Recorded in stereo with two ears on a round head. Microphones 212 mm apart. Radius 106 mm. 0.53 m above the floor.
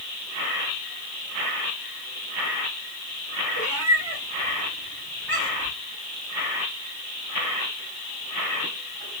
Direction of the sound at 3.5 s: 65° right (ahead or behind).